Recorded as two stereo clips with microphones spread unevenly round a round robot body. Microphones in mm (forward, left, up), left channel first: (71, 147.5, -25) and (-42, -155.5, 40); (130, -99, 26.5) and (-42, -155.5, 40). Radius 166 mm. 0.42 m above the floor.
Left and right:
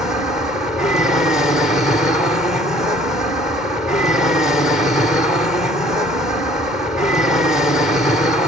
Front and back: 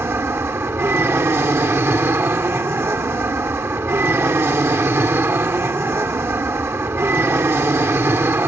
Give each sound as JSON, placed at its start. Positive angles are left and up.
{"t": 0.0, "sound": "an aircraft", "azimuth_deg": 135}